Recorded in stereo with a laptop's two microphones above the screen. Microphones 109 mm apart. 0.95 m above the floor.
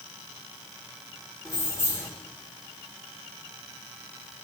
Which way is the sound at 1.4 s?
30° left (ahead or behind).